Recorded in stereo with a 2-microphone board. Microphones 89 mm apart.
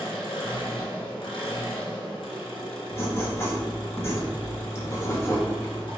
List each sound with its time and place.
0.0 s an engine running: 80° left, 1.9 m
2.9 s writing: 25° left (ahead or behind), 0.8 m